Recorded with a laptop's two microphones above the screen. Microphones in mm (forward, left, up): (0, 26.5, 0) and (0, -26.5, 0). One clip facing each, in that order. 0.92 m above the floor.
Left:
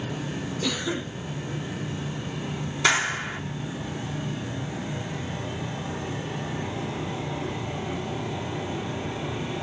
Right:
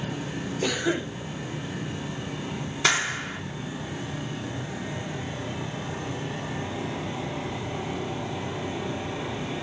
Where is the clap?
15° left (ahead or behind), 1.5 m.